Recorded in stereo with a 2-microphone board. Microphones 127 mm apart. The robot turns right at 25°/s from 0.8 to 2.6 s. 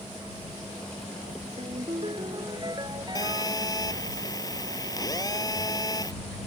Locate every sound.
1.6 s a ringtone: 55° right (ahead or behind); by 3.9 s 35° right (ahead or behind)
3.1 s a phone buzzing: 30° left (ahead or behind)